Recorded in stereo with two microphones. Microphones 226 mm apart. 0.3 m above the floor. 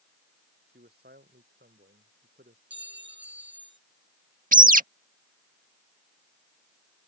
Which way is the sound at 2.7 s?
55° right (ahead or behind).